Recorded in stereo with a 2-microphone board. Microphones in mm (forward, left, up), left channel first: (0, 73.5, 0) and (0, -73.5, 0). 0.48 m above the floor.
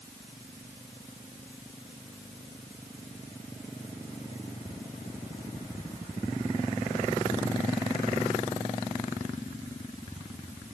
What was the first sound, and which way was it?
Only background noise.